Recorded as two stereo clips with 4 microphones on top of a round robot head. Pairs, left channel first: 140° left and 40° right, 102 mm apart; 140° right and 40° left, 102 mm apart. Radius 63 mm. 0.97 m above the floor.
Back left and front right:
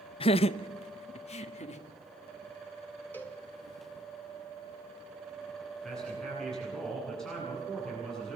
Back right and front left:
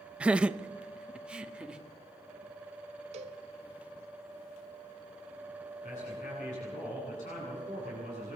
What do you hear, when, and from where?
0.2 s laughter: 120° left, 0.6 m; by 1.8 s 125° left, 1.9 m
3.1 s a cowbell: 65° left, 1.6 m
5.8 s a man speaking: 135° right, 10 m